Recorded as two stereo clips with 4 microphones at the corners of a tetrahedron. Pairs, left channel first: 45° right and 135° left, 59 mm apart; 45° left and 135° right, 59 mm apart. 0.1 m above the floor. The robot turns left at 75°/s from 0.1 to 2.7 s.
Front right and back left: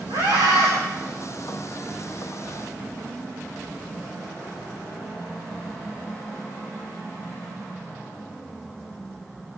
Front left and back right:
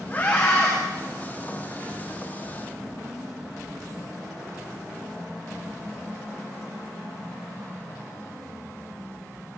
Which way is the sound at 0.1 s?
120° left.